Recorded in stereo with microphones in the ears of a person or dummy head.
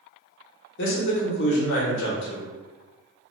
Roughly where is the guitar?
I don't hear a guitar.